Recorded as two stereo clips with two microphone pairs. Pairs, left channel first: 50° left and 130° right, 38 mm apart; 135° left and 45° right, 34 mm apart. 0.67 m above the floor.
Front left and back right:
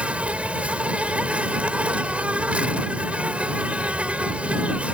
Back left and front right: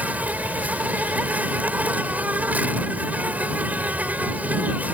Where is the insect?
75° right.